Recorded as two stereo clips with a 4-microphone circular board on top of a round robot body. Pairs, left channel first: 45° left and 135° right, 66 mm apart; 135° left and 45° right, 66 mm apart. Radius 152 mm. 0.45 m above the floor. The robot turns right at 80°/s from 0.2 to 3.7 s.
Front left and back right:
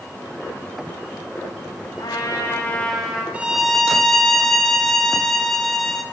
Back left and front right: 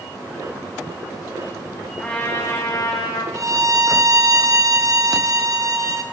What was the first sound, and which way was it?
A trumpet, 50° left.